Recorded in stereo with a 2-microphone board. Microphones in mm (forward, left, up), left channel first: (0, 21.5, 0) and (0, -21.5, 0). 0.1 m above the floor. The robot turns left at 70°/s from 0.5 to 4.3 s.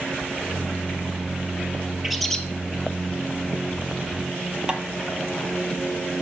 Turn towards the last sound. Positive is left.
turn(degrees=-20)  # may be behind; listen again after turning